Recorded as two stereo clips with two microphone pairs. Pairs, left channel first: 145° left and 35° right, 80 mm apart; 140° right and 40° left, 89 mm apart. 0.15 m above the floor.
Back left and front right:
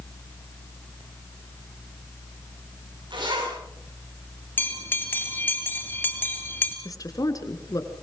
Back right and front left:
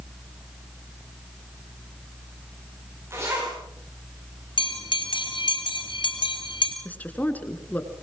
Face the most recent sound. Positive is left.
turn(degrees=155)